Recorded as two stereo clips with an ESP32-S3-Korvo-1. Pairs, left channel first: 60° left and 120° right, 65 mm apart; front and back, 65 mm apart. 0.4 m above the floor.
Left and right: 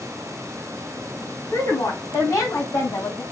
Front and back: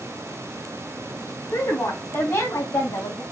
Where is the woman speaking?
35° left, 2.5 m; by 3.2 s 15° left, 2.5 m.